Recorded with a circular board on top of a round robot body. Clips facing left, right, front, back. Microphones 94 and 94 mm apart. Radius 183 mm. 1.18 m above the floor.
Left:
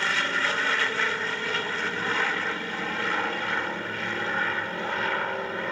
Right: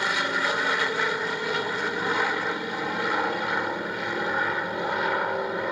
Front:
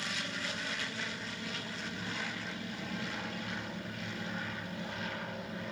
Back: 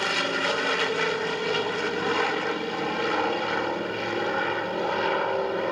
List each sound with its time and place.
0.0 s an aircraft: 165° right